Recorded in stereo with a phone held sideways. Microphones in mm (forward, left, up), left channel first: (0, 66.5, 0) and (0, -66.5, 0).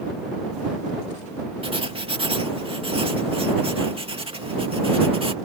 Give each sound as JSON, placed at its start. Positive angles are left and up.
{"t": 1.6, "sound": "writing", "side_deg": -45}